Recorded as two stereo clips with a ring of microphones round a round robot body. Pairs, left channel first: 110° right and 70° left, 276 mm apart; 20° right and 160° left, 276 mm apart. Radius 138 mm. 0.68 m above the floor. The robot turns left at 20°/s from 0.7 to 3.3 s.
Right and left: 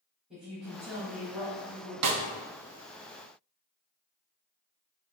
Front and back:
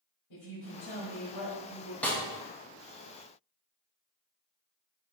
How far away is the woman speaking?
About 1.4 m.